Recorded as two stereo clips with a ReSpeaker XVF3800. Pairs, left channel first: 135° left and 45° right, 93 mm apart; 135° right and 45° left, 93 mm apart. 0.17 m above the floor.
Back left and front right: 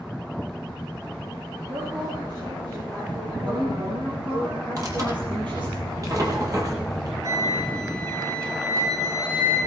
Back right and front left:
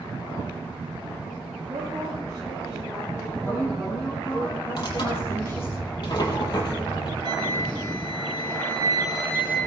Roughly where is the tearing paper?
Right.